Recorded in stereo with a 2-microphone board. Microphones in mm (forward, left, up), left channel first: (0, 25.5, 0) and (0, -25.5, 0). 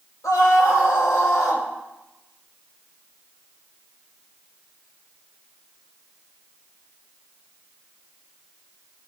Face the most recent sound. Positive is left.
turn(degrees=75)  # may be behind; listen again after turning